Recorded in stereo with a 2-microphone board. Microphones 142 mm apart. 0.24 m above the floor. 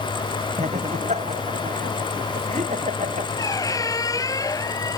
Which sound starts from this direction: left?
A squeak, at 3.4 s.